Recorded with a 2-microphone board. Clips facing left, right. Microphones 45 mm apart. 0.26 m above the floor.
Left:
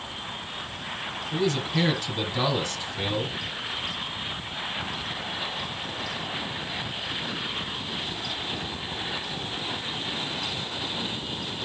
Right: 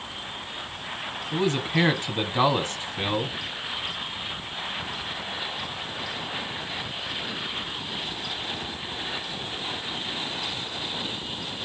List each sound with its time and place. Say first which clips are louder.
1.3 s a man speaking: right 2 dB; 35° right (ahead or behind), 1.5 m